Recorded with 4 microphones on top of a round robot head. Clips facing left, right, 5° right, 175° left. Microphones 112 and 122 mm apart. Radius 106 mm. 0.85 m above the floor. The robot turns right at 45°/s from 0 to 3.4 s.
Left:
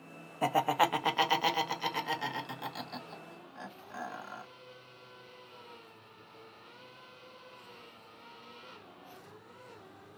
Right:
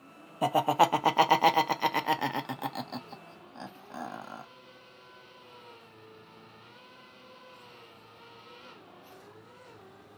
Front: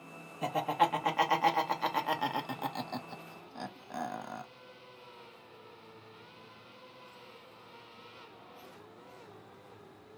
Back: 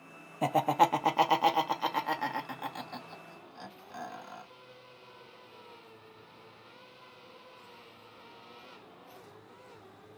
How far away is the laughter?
About 0.5 m.